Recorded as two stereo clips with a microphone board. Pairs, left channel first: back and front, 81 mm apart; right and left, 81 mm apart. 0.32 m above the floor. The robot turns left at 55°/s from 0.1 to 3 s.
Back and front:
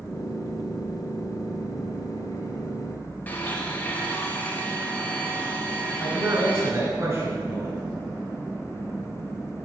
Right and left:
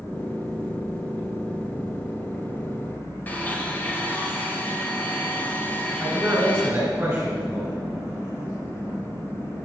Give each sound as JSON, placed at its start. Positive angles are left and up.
{"t": 3.3, "sound": "a blender", "azimuth_deg": -135, "distance_m": 0.8}
{"t": 6.0, "sound": "a man speaking", "azimuth_deg": 35, "distance_m": 2.0}